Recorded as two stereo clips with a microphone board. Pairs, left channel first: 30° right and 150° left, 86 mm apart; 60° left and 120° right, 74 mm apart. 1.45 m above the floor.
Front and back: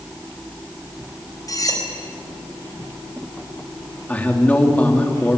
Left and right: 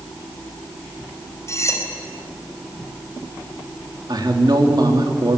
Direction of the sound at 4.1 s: 100° right.